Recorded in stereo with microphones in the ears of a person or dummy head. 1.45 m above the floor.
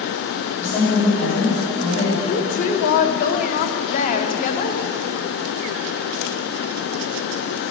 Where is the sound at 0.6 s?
40° left (ahead or behind), 3.5 m.